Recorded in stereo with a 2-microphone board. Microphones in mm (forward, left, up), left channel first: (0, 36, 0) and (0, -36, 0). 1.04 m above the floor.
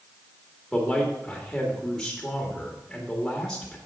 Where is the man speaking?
5° left (ahead or behind), 1.9 m.